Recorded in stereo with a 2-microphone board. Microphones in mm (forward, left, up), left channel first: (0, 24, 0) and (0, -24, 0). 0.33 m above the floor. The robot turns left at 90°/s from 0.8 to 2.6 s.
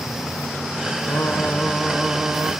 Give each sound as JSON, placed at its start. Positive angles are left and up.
{"t": 1.1, "sound": "singing", "azimuth_deg": 70, "distance_m": 1.3}